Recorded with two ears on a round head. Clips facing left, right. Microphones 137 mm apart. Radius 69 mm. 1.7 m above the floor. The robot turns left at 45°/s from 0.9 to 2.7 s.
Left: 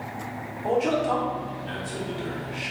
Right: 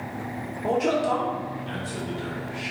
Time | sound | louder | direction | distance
0.6 | a man speaking | even | 130° right | 1.3 m